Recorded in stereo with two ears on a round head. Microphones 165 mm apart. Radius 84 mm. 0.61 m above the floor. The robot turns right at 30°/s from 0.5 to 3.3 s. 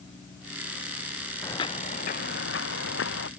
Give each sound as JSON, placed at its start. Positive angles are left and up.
{"t": 1.4, "sound": "footsteps", "side_deg": 15}